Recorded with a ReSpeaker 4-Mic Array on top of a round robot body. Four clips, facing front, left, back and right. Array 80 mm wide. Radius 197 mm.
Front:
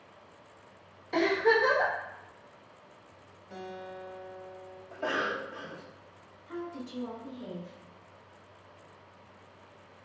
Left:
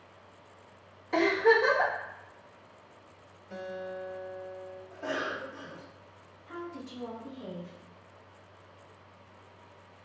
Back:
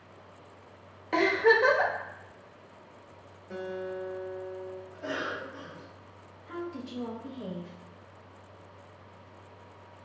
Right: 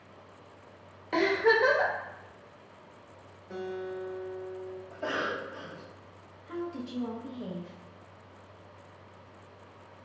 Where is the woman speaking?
135° right, 1.0 m.